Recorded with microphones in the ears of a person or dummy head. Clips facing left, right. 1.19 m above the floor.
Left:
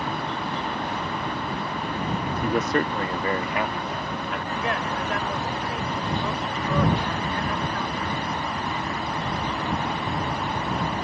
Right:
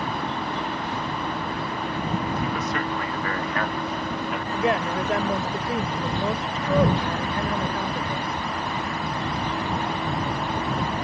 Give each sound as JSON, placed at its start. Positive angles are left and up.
{"t": 2.4, "sound": "a man speaking", "side_deg": 45}
{"t": 4.5, "sound": "a woman speaking", "side_deg": -25}